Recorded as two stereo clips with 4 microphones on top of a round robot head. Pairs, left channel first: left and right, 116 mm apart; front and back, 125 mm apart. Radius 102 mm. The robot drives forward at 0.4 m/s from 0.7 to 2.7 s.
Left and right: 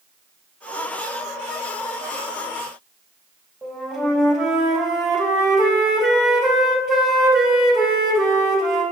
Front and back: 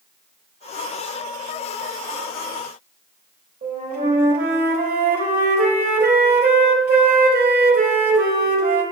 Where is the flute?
Straight behind, 0.8 m.